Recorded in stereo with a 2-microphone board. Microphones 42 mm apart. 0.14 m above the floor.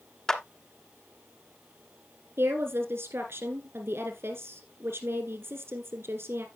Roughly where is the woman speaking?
Right.